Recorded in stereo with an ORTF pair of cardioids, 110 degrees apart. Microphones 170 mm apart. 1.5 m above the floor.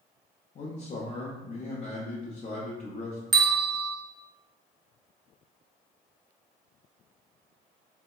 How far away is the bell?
About 0.5 m.